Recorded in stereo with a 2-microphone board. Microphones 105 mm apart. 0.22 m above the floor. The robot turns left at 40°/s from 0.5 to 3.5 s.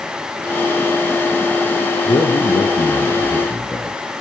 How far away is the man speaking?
About 3 m.